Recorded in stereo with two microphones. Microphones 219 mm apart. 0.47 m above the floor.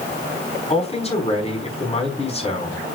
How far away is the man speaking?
About 4.5 m.